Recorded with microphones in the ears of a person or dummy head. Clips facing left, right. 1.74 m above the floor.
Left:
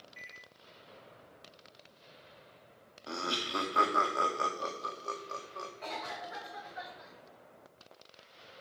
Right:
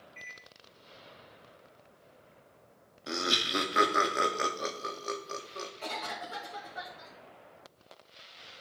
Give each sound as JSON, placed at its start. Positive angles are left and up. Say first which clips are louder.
{"t": 0.2, "sound": "a microwave", "louder": "right 2 dB", "side_deg": 10, "distance_m": 2.0}
{"t": 3.1, "sound": "laughter", "louder": "right 4 dB", "side_deg": -25, "distance_m": 0.8}
{"t": 5.8, "sound": "a cough", "louder": "right 1 dB", "side_deg": -50, "distance_m": 2.5}